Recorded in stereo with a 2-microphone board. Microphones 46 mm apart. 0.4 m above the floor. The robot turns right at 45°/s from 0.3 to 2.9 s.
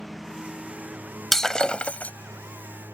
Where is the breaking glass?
5° left; by 2.1 s 45° left.